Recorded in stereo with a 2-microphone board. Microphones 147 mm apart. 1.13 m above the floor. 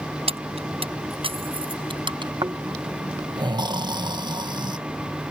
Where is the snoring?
30° right (ahead or behind).